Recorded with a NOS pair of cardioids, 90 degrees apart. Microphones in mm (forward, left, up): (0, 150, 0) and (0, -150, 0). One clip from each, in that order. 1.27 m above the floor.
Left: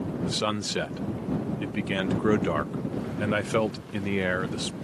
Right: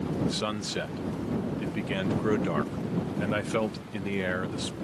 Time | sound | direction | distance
0.2 | a man speaking | 15° left | ?